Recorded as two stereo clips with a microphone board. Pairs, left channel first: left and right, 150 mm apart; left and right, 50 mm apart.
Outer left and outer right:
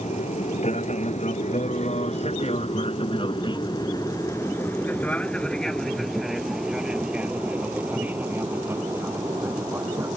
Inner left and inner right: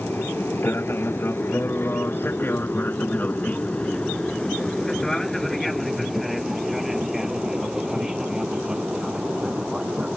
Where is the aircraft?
50° left (ahead or behind); by 10.2 s 20° right (ahead or behind).